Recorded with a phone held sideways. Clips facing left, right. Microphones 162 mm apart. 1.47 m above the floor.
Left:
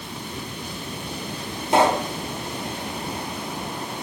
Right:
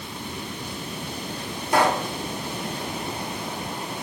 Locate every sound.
1.7 s a pop: 25° left (ahead or behind), 0.7 m